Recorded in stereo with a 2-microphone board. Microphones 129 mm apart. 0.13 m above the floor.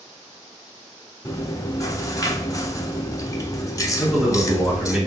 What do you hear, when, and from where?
1.2 s chewing: 25° left (ahead or behind), 0.6 m
4.0 s a man speaking: 5° right (ahead or behind), 1.8 m